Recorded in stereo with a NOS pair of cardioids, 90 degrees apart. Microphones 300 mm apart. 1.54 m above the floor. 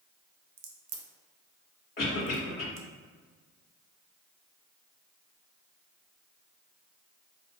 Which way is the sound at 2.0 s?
35° left.